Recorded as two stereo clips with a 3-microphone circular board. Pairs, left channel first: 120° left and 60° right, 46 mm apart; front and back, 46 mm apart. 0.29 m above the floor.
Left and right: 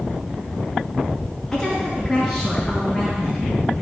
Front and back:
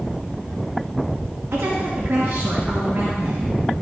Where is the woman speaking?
155° right, 2.5 m; by 3.4 s 135° right, 3 m.